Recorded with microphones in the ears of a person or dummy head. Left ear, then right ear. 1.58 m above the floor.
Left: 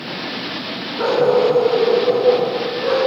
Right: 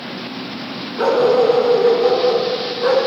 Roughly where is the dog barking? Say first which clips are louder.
Right 1 dB; right.